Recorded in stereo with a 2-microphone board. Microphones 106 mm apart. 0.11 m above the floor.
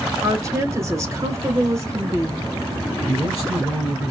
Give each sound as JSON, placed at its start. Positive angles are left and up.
{"t": 0.2, "sound": "a woman speaking", "side_deg": -30, "distance_m": 1.1}
{"t": 3.0, "sound": "a man speaking", "side_deg": -5, "distance_m": 1.8}